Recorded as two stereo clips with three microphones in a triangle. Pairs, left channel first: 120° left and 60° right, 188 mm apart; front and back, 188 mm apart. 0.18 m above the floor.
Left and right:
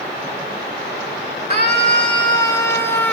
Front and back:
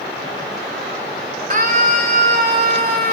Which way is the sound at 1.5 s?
165° left.